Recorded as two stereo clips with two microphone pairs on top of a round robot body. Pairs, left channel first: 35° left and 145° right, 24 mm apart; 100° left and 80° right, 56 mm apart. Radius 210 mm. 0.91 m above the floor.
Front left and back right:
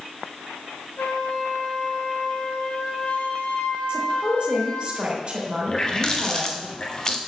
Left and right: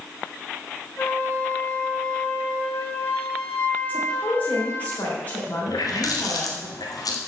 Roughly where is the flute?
Ahead left.